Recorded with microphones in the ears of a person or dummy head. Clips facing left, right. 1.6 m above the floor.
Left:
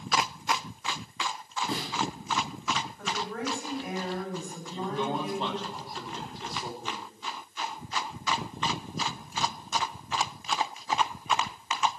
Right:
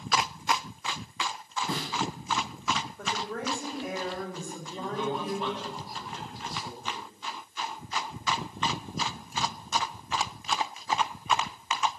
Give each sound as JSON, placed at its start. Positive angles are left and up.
{"t": 1.7, "sound": "a snare drum", "side_deg": -45, "distance_m": 6.5}
{"t": 3.0, "sound": "a woman speaking", "side_deg": -45, "distance_m": 7.0}
{"t": 4.7, "sound": "a man speaking", "side_deg": 25, "distance_m": 3.5}